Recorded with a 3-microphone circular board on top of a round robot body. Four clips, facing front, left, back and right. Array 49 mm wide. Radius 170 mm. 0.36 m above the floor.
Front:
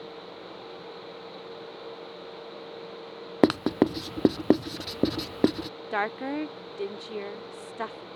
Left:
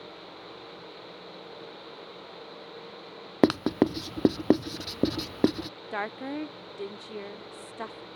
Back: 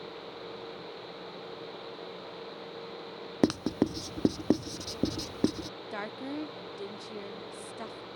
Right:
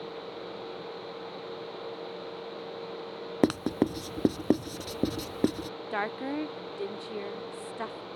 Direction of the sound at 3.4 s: 25° left.